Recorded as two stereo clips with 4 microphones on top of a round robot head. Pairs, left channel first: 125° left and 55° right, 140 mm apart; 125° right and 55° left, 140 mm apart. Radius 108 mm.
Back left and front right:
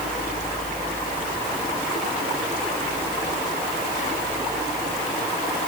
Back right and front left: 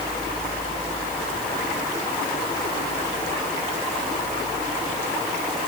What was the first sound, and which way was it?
Only background noise.